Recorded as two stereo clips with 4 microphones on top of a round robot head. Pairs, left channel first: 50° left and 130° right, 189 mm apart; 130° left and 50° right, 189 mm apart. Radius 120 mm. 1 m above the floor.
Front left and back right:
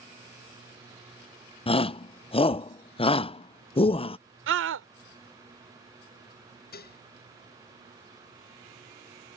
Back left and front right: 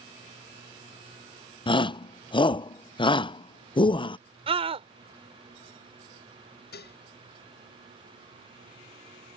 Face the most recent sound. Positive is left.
turn(degrees=90)